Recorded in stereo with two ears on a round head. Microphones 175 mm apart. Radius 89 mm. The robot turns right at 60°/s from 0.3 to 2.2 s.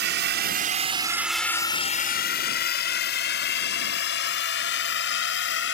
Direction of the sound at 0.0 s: 55° right (ahead or behind).